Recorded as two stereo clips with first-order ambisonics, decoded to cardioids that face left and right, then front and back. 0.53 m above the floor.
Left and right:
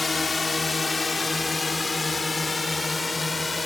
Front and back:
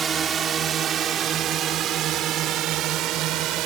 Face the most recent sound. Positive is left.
turn(degrees=170)